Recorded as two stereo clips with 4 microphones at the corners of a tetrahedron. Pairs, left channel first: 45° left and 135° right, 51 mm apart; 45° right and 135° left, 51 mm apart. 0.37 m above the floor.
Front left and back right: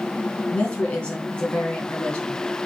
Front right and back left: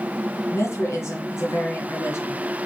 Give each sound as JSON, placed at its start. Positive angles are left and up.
{"t": 0.5, "sound": "a woman speaking", "azimuth_deg": -20, "distance_m": 3.5}